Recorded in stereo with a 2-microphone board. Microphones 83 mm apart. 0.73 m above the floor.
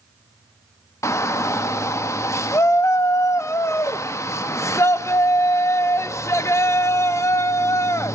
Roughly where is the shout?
Left.